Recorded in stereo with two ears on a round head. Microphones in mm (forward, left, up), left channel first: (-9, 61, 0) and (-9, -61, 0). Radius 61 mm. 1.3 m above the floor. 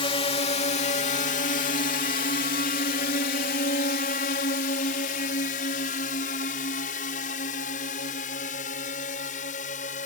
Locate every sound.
0.0 s a drone: 40° left (ahead or behind); by 10.1 s 65° left (ahead or behind)